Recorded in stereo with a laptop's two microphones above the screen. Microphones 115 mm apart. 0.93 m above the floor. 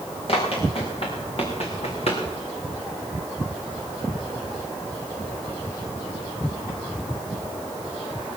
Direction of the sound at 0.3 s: 55° left (ahead or behind).